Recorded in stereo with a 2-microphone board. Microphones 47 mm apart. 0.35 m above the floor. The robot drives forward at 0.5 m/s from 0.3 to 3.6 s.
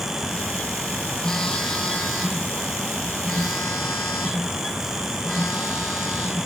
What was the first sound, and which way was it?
A phone buzzing, 15° left (ahead or behind).